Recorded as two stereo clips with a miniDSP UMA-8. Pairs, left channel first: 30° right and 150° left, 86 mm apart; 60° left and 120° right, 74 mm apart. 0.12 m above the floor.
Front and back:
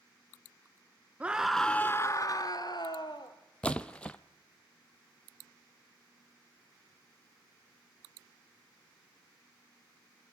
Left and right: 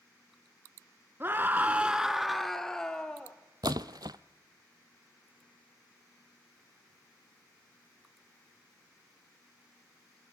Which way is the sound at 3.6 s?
105° right.